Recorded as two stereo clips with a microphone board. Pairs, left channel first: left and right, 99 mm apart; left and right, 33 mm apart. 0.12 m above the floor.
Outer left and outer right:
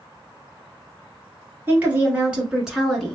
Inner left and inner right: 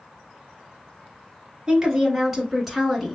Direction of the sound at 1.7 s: 20° right (ahead or behind).